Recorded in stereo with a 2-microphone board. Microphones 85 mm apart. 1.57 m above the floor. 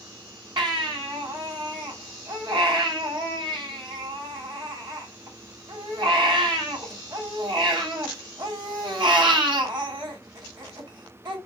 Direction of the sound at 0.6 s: 70° right (ahead or behind).